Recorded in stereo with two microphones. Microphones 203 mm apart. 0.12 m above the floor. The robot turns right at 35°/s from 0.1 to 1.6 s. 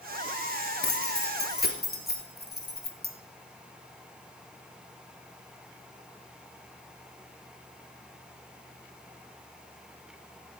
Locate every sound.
0.8 s keys jangling: 60° left (ahead or behind), 1.7 m; by 3.1 s 50° left (ahead or behind), 1.7 m